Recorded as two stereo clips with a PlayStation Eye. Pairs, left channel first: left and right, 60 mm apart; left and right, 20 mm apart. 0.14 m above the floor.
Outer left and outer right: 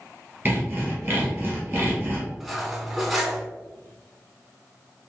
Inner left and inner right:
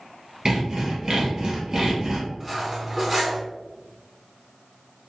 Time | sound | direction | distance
0.5 | sawing | 30° right (ahead or behind) | 1.7 m
2.4 | cutlery clinking | centre (ahead or behind) | 0.6 m